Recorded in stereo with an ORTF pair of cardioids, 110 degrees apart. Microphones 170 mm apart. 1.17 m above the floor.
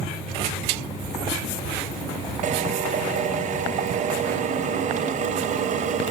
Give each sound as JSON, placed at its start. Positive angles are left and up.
{"t": 2.4, "sound": "a drill", "azimuth_deg": -50, "distance_m": 3.5}